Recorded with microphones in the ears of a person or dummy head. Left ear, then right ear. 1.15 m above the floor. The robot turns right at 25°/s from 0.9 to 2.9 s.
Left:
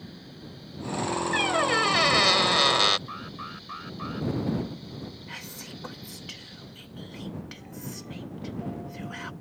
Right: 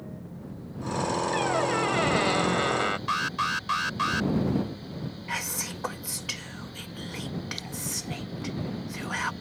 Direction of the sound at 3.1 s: 70° right (ahead or behind).